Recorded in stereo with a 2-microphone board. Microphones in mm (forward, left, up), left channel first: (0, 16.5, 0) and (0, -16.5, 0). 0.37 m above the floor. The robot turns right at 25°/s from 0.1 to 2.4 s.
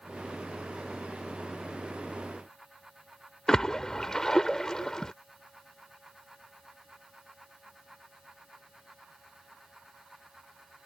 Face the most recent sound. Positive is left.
turn(degrees=15)  # may be behind; listen again after turning